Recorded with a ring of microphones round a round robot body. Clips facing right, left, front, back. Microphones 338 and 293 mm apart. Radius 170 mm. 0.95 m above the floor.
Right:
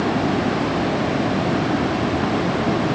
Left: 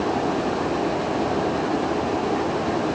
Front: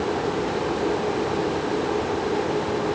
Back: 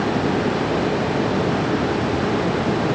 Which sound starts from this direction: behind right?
Running water, at 0.0 s.